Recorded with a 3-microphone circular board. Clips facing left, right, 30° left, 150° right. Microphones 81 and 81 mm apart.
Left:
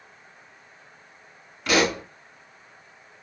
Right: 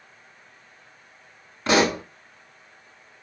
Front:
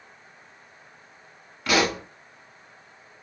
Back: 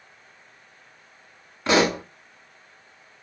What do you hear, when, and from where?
1.7 s a pop: 115° right, 0.8 m